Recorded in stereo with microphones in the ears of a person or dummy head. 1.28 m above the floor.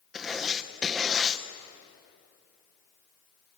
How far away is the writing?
About 0.8 m.